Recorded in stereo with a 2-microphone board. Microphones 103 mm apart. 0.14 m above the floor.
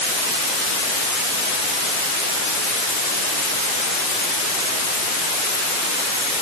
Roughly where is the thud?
No thud in this recording.